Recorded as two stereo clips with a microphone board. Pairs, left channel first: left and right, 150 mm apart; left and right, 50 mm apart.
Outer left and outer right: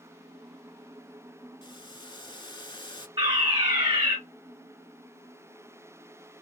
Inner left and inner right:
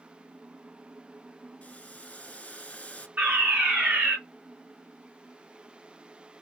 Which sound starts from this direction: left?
Boiling, at 1.6 s.